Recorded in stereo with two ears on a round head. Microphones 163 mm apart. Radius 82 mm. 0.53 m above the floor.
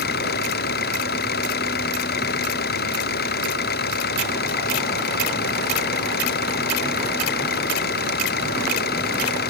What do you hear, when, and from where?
0.0 s an engine running: 60° left (ahead or behind)